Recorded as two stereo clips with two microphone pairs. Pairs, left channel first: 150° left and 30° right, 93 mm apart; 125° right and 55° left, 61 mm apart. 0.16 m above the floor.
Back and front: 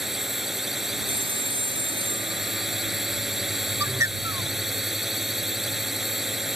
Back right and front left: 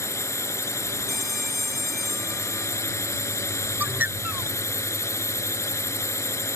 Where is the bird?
10° left.